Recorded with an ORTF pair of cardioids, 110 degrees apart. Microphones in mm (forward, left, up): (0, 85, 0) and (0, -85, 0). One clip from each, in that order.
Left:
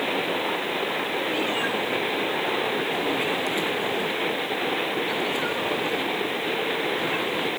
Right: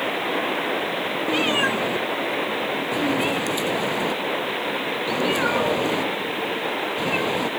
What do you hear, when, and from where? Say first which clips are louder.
1.3 s a cat meowing: right 8 dB; 50° right